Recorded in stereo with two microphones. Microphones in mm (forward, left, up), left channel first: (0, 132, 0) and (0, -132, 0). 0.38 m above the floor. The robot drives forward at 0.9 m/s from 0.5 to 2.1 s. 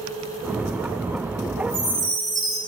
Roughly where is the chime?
Centre.